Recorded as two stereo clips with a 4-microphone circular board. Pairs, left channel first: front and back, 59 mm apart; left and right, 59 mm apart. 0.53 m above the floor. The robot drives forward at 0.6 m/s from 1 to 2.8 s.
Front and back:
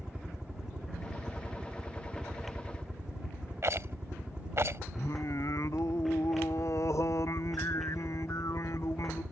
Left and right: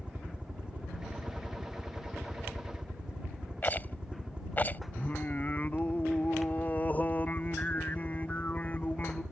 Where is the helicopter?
120° right; by 9.3 s 130° right.